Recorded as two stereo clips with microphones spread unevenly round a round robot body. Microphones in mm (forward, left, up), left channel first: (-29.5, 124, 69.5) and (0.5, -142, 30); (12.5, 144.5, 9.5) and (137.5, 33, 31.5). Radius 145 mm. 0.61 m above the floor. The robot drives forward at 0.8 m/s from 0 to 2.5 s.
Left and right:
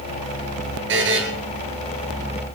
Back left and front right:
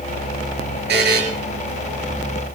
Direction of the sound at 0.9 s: 35° right.